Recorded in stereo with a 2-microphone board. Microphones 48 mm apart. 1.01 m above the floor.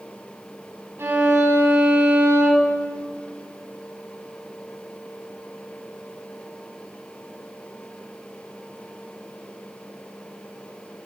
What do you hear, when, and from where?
1.0 s a violin: 65° right (ahead or behind), 3.5 m